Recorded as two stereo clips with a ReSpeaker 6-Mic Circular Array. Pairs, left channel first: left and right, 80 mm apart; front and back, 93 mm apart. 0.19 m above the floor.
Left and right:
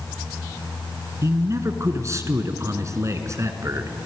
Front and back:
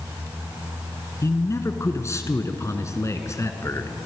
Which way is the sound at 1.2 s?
50° right.